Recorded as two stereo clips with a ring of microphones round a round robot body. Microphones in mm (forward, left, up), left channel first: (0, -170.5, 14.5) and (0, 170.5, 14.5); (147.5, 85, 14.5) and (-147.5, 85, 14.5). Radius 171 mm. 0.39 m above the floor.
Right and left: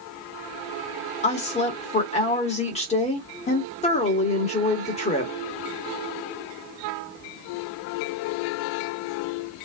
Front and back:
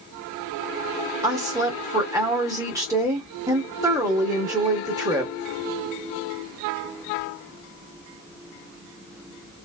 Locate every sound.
1.2 s a woman speaking: 120° right, 1.3 m